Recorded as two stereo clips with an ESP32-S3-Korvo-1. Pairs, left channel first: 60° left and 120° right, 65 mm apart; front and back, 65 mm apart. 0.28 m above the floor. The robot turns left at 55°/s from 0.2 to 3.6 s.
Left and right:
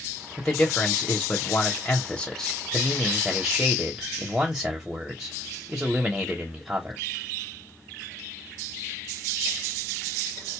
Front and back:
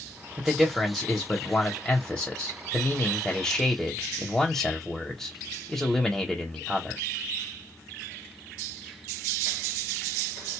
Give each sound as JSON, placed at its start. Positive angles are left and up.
{"t": 0.4, "sound": "a man speaking", "azimuth_deg": 115, "distance_m": 0.9}